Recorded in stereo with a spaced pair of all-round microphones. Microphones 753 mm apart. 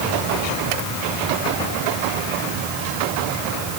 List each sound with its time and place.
Only background noise.